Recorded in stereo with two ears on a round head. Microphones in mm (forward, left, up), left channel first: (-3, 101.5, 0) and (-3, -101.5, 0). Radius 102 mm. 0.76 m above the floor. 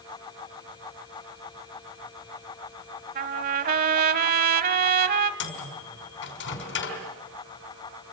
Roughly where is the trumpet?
Right.